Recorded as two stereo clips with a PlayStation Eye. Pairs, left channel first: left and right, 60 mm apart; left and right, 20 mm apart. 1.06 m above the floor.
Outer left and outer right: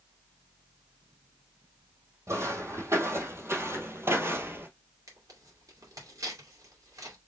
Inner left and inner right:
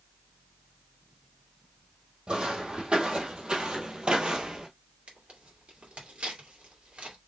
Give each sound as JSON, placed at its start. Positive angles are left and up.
{"t": 2.3, "sound": "footsteps", "side_deg": -50, "distance_m": 2.5}
{"t": 5.1, "sound": "tearing paper", "side_deg": -70, "distance_m": 2.5}